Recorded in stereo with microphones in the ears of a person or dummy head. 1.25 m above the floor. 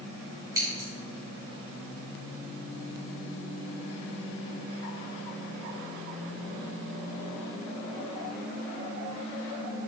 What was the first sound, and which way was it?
Scissors, 20° right (ahead or behind).